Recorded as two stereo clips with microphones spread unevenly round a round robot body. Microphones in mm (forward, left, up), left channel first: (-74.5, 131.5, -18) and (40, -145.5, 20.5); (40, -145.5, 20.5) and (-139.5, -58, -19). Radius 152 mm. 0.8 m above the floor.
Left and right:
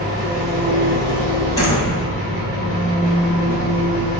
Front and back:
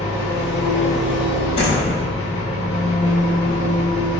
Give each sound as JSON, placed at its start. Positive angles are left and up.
{"t": 0.0, "sound": "an engine running", "azimuth_deg": 60, "distance_m": 1.1}
{"t": 1.6, "sound": "a door slam", "azimuth_deg": 35, "distance_m": 1.1}